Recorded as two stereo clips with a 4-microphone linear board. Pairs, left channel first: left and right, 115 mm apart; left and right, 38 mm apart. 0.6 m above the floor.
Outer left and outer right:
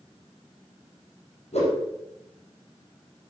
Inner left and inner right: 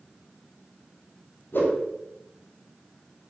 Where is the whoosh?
70° left (ahead or behind), 4 m.